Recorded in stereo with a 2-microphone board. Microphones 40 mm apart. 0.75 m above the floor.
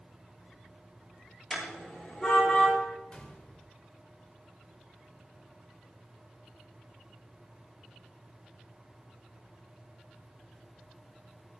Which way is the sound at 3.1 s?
30° left (ahead or behind).